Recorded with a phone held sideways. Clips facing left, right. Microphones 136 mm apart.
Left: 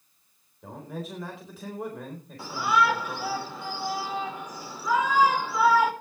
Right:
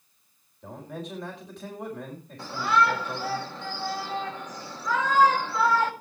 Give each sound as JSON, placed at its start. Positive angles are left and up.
{"t": 0.6, "sound": "a man speaking", "side_deg": 5, "distance_m": 4.5}
{"t": 2.4, "sound": "a shout", "side_deg": 10, "distance_m": 3.0}